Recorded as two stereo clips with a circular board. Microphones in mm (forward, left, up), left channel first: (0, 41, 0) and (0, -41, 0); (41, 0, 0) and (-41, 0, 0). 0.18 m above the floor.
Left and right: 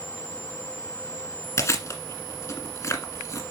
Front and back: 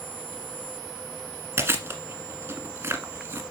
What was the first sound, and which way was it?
Chewing, 130° left.